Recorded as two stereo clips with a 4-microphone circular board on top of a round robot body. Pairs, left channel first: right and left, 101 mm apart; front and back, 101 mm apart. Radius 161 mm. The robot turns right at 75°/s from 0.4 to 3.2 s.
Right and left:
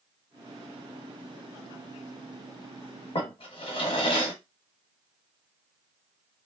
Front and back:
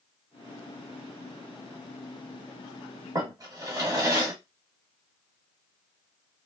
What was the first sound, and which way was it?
A drawer, 125° right.